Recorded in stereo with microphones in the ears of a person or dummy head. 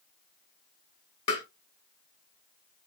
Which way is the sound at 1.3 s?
30° left (ahead or behind).